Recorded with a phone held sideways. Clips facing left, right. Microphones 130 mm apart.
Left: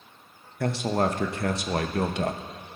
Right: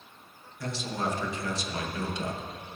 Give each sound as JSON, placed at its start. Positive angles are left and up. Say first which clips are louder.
{"t": 0.6, "sound": "a man speaking", "louder": "left 8 dB", "side_deg": 60, "distance_m": 0.6}